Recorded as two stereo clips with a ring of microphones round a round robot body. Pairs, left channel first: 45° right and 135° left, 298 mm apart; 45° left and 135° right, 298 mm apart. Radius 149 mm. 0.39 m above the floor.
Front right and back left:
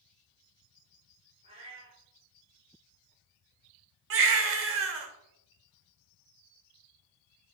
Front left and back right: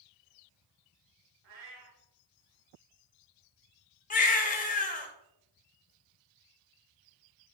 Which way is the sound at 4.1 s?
105° left.